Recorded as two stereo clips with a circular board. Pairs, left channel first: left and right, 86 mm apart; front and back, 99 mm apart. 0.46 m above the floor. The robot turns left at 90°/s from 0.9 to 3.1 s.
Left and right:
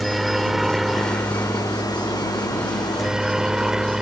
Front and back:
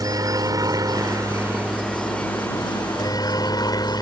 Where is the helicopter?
175° right; by 4.0 s 10° right.